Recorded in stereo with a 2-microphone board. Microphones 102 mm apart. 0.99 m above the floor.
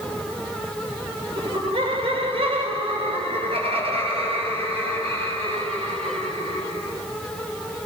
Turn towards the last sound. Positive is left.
turn(degrees=-80)